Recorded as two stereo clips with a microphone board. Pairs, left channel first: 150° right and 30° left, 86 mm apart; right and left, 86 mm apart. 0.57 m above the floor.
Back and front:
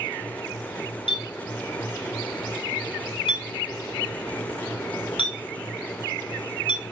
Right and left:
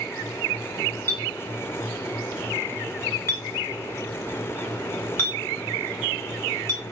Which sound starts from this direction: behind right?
A clink, at 1.1 s.